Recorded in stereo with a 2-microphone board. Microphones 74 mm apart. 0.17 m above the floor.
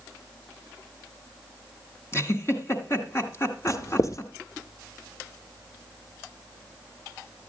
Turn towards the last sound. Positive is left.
turn(degrees=45)  # may be behind; listen again after turning